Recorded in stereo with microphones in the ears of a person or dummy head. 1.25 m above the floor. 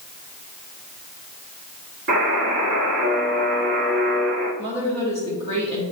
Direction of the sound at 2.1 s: 60° right (ahead or behind).